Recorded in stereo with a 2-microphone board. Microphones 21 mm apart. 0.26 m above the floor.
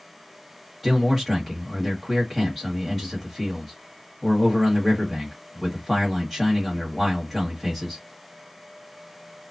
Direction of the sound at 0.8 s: 10° left (ahead or behind).